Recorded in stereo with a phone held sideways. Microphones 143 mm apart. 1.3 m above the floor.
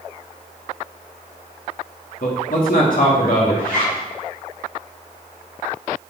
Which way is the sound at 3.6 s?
65° left (ahead or behind).